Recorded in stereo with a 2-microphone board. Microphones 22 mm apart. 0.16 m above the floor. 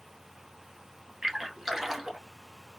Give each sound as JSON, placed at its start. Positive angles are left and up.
{"t": 1.2, "sound": "a splash", "side_deg": -20, "distance_m": 1.0}